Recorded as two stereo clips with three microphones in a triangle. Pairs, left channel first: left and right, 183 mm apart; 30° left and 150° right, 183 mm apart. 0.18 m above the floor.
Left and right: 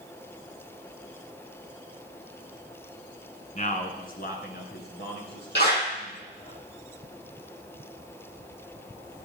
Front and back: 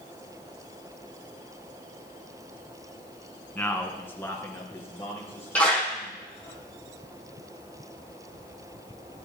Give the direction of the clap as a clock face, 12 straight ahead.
8 o'clock.